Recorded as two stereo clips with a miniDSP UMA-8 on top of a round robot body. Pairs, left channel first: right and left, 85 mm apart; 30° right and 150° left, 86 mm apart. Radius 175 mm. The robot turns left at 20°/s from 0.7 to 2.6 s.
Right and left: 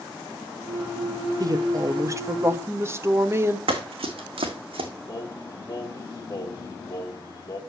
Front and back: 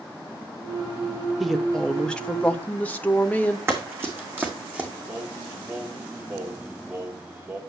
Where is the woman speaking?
65° left, 1.3 m; by 3.6 s 40° left, 1.3 m.